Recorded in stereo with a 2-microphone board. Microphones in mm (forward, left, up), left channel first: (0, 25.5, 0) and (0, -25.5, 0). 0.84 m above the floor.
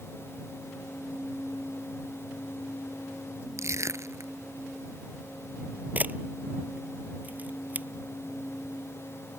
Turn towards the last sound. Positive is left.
turn(degrees=-30)  # may be behind; listen again after turning